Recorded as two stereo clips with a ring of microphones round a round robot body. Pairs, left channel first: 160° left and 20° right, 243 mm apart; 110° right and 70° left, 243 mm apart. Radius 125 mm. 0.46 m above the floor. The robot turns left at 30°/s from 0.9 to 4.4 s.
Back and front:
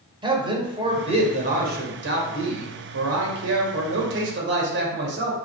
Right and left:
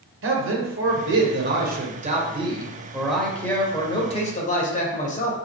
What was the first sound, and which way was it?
A man speaking, 45° left.